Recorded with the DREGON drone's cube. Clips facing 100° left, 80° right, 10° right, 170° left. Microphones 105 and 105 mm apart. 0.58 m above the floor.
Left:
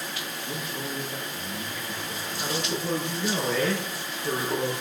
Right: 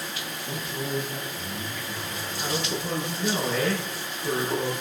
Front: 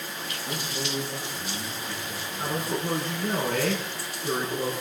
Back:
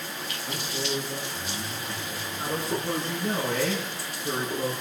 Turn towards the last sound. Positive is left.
turn(degrees=10)